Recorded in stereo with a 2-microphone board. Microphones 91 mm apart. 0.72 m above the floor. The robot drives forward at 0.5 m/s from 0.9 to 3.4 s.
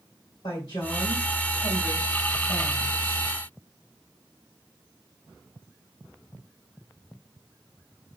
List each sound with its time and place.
0.4 s a woman speaking: 70° left (ahead or behind), 3 m; by 3.2 s 80° left, 3 m